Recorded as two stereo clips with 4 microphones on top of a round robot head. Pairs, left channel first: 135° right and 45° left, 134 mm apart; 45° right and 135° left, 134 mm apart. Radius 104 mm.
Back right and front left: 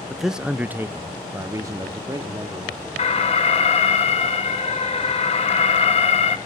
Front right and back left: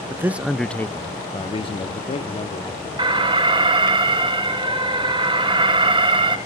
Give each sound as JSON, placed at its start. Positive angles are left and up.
{"t": 0.1, "sound": "a man speaking", "azimuth_deg": 135, "distance_m": 0.7}
{"t": 3.0, "sound": "an alarm", "azimuth_deg": -175, "distance_m": 1.6}